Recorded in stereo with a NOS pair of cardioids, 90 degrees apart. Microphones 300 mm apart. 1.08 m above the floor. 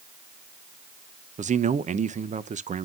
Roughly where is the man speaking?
Ahead right.